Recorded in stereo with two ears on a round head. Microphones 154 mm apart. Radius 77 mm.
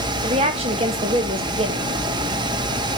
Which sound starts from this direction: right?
A woman speaking, at 0.2 s.